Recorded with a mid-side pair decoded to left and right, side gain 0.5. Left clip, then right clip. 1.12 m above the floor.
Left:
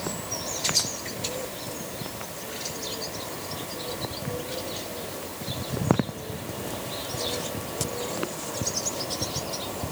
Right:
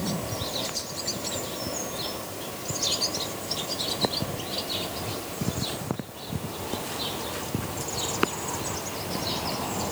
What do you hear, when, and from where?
Only background noise.